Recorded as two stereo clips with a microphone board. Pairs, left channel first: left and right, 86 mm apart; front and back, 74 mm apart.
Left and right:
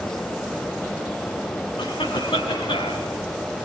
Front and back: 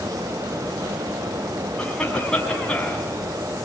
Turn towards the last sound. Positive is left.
turn(degrees=80)